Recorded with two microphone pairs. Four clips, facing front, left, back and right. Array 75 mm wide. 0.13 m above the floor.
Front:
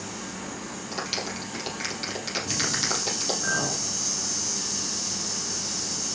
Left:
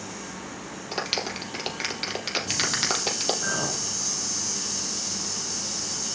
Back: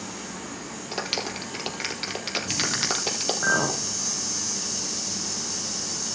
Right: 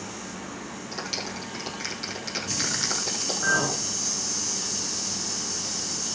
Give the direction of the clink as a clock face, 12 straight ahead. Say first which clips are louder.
Right 5 dB, back 6 dB; 6 o'clock.